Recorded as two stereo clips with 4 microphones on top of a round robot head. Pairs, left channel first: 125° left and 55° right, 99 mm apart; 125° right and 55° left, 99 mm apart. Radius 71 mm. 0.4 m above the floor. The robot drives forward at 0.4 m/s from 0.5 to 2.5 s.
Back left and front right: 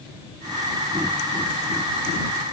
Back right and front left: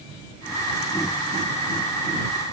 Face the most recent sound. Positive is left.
No sound to turn to.